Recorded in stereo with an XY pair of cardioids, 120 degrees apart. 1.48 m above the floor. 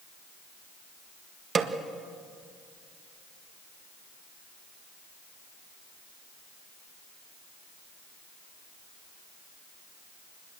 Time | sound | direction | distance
1.6 | a snare drum | 35° right | 1.6 m